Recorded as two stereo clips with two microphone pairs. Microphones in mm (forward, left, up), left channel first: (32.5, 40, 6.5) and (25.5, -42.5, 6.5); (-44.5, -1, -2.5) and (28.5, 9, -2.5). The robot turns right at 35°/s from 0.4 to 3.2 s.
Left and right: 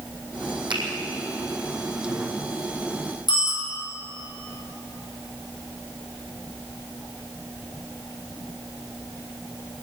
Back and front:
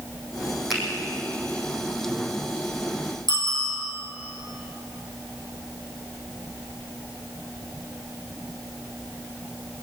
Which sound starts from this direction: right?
A finger snap, at 0.7 s.